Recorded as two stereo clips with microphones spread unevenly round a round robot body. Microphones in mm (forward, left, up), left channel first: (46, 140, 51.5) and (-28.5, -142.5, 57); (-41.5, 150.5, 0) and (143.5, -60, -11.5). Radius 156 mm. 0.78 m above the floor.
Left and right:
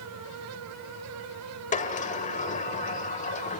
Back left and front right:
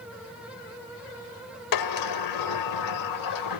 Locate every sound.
1.7 s a sliding door: 145° left, 1.0 m